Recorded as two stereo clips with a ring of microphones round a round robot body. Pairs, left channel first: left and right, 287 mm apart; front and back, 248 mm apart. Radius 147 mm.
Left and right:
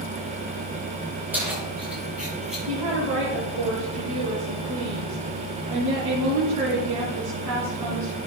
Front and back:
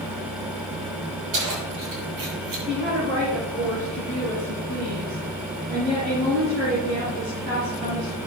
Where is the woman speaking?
120° right, 5 m.